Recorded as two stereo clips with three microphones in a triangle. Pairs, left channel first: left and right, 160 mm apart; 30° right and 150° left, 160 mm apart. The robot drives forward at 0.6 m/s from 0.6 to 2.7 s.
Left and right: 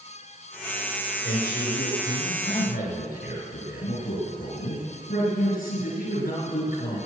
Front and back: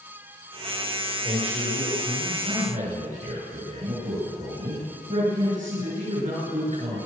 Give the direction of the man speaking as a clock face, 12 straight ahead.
9 o'clock.